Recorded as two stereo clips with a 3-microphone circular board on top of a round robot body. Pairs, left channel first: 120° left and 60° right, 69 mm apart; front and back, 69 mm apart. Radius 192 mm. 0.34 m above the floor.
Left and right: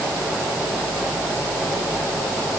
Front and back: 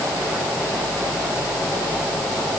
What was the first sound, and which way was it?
Only background noise.